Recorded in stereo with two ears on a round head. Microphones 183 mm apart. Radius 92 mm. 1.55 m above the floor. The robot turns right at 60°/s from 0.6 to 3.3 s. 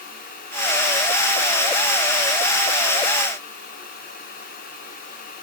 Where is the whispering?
No whispering in this recording.